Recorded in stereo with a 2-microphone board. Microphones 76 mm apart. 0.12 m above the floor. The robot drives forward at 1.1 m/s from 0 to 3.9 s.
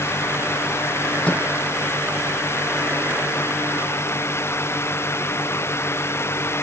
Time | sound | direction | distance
1.2 | a microwave | 15° left (ahead or behind) | ?